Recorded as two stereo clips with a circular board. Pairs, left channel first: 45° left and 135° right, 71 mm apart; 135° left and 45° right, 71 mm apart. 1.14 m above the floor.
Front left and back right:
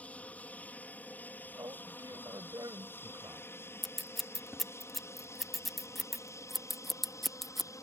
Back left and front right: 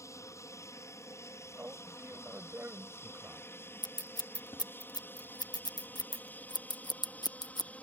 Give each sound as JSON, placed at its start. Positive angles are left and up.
{"t": 0.0, "sound": "an aircraft", "azimuth_deg": 110}
{"t": 1.6, "sound": "a man speaking", "azimuth_deg": -110}
{"t": 3.8, "sound": "scissors", "azimuth_deg": 135}